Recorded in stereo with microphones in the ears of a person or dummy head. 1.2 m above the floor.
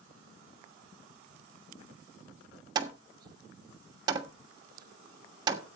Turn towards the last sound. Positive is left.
turn(degrees=-25)  # may be behind; listen again after turning